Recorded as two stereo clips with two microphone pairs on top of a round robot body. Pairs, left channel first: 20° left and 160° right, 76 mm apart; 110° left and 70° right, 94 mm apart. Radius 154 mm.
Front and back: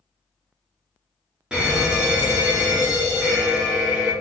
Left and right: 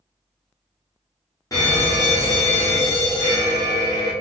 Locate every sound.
1.5 s a fire alarm: 130° left, 1.9 m